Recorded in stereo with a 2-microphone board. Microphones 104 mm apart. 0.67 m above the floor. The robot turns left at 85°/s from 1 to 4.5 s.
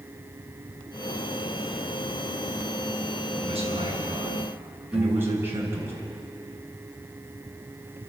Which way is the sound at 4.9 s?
5° right (ahead or behind).